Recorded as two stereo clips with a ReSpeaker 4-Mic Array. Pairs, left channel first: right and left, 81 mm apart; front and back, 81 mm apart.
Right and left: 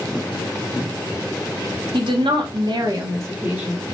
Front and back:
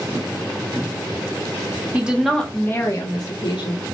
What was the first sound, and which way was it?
A woman speaking, 105° left.